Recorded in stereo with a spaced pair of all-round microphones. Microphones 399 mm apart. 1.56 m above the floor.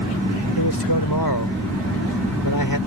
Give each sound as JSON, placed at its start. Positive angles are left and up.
{"t": 0.6, "sound": "a man speaking", "side_deg": 75}